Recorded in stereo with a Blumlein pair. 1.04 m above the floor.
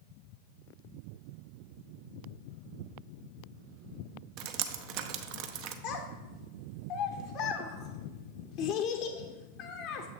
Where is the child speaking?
40° left, 0.6 m.